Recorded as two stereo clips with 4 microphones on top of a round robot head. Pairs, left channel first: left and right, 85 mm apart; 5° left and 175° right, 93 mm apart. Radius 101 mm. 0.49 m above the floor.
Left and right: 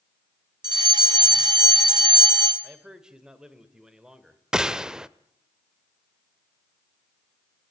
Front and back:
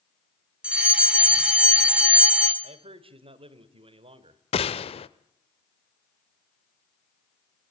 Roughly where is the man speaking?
Behind.